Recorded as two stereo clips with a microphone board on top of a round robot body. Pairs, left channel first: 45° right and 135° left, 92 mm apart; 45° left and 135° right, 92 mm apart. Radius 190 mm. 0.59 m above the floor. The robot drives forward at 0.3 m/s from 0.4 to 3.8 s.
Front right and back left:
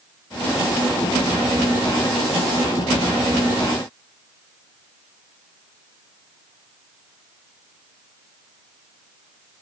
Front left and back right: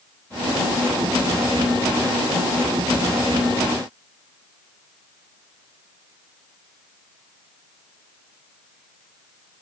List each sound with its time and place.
Only background noise.